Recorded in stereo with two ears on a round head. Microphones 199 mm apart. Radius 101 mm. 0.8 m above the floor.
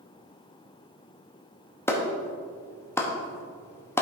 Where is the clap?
10° left (ahead or behind), 0.9 m.